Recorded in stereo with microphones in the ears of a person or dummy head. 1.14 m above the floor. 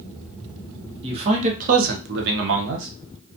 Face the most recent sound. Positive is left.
turn(degrees=-60)  # may be behind; listen again after turning